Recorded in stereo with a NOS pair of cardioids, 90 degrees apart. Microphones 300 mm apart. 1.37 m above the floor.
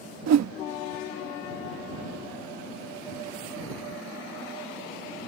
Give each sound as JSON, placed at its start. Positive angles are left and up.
{"t": 0.3, "sound": "a whoosh", "azimuth_deg": -65}